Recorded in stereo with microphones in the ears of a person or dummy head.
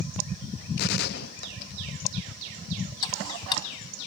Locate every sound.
0.8 s a gunshot: 60° left (ahead or behind), 0.7 m
3.0 s ticking: 30° left (ahead or behind), 2.5 m